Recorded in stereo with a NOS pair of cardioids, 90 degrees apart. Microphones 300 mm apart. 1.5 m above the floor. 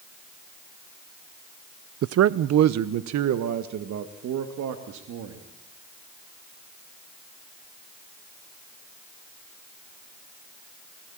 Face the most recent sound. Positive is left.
turn(degrees=-75)